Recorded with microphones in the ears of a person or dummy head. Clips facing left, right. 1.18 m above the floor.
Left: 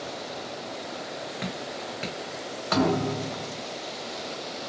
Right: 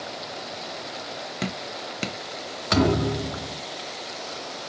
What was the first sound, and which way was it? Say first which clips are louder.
Dripping: right 2 dB; 50° right (ahead or behind).